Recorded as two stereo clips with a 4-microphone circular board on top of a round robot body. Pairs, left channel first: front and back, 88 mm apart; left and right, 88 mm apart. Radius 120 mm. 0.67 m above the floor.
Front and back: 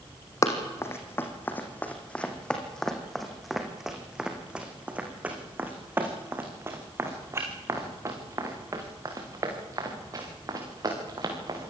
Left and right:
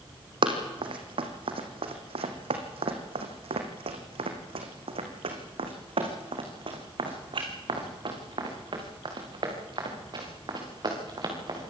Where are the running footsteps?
60° right, 3 m; by 11.7 s 135° right, 7 m.